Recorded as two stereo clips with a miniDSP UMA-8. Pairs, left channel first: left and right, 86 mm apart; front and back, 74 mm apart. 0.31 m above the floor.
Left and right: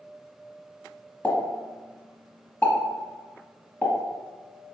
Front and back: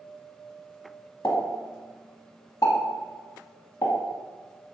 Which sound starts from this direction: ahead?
A pop, at 1.2 s.